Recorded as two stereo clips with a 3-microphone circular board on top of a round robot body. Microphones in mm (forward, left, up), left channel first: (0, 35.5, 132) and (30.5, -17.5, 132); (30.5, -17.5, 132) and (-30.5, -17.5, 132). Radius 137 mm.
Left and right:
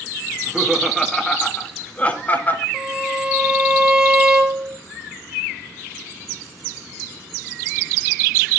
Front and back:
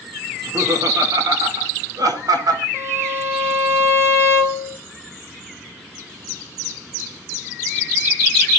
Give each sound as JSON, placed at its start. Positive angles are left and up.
{"t": 0.3, "sound": "laughter", "azimuth_deg": -135, "distance_m": 2.0}
{"t": 2.7, "sound": "a violin", "azimuth_deg": -135, "distance_m": 1.2}